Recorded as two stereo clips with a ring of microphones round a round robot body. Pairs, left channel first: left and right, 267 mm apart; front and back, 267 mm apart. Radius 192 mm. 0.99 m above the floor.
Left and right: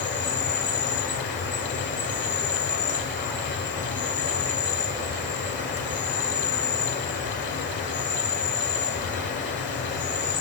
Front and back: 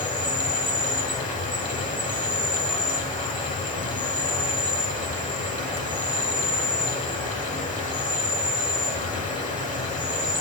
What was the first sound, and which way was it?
An insect, 55° left.